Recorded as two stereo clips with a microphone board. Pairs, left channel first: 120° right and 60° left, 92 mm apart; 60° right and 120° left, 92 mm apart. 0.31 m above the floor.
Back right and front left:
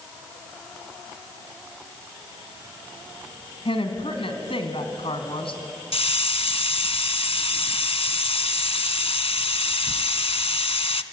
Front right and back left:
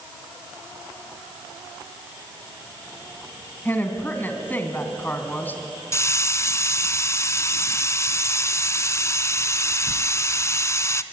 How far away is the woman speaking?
About 2.5 m.